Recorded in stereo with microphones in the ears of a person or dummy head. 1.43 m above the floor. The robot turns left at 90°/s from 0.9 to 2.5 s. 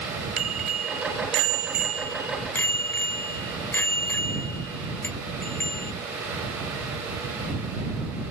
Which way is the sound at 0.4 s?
50° right.